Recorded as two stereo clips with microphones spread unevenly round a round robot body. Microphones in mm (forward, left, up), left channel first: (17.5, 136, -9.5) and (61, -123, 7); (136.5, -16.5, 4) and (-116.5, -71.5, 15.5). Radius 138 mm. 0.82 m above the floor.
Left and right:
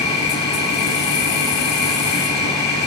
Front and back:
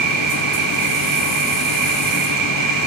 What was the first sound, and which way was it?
An insect, 135° left.